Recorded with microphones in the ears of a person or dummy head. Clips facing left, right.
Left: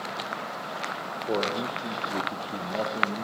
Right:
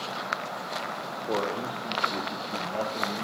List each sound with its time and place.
1.3 s a man speaking: 15° left (ahead or behind), 3.5 m